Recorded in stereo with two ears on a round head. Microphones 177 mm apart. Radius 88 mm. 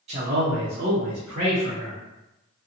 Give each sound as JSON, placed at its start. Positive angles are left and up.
{"t": 0.1, "sound": "a man speaking", "side_deg": -35, "distance_m": 0.7}